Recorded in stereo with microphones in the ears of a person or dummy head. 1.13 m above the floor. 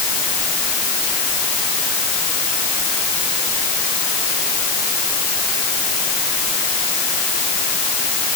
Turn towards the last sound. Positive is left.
No sound to turn to.